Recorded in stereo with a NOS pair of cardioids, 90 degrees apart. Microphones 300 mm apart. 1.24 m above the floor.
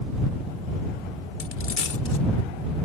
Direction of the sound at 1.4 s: 45° left.